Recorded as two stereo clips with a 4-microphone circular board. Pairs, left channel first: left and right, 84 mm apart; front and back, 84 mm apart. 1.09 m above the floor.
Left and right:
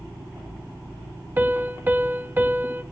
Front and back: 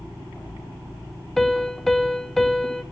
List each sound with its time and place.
1.4 s a piano: 85° right, 0.7 m